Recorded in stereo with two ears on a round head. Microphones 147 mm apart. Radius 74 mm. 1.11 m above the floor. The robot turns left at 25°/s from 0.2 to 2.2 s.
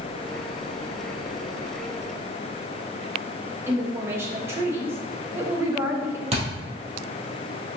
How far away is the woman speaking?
About 1.1 m.